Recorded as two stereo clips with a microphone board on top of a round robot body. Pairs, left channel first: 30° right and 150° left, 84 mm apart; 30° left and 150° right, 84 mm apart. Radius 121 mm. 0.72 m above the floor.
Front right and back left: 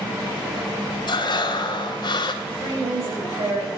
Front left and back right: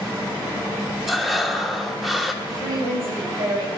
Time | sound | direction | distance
1.1 | breathing | 65° right | 2 m
2.4 | a woman speaking | 175° right | 6 m